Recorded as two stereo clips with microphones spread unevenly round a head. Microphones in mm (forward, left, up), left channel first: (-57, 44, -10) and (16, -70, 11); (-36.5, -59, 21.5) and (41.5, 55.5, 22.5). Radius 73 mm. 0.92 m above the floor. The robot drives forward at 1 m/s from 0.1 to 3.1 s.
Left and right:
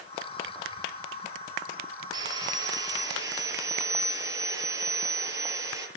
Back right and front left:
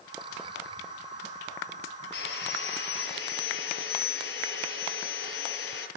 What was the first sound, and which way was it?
Sawing, 120° right.